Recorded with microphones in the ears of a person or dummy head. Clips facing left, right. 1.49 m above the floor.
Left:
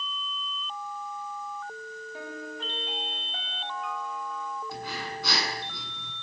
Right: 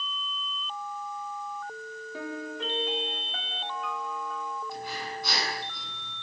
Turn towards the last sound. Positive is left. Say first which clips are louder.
# even
turn(degrees=55)  # may be behind; listen again after turning